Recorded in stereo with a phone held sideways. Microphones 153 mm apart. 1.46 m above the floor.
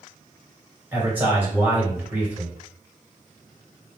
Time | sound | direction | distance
0.9 | a man speaking | 10° right (ahead or behind) | 1.8 m